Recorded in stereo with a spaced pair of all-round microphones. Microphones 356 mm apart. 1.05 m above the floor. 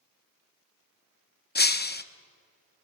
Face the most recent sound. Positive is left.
turn(degrees=30)  # may be behind; listen again after turning